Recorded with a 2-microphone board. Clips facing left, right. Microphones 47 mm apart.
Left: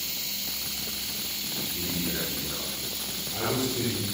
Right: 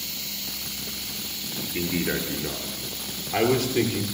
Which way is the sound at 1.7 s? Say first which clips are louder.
Right 7 dB; 85° right.